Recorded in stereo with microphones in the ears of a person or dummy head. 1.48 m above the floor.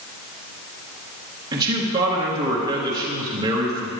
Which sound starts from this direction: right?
A man speaking, at 1.5 s.